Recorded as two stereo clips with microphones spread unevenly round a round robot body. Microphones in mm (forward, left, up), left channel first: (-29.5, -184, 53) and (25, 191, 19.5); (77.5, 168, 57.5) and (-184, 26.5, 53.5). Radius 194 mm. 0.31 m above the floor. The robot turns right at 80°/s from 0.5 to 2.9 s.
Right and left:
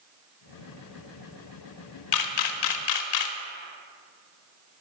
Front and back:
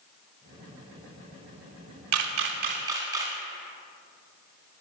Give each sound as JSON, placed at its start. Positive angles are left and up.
{"t": 2.1, "sound": "a camera shutter", "azimuth_deg": -135, "distance_m": 0.6}